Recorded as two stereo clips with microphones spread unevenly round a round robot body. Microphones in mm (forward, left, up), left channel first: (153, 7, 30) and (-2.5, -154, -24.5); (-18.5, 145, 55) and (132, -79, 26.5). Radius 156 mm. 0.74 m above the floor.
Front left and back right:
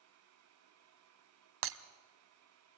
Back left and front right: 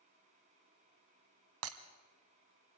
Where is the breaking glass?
105° right, 1.0 m.